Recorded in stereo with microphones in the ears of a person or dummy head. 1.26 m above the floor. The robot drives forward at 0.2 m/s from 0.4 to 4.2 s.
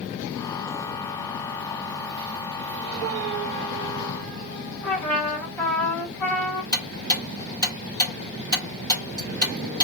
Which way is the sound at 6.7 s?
15° left (ahead or behind).